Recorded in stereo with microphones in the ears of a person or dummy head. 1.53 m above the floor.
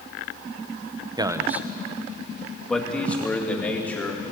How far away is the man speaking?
About 0.9 m.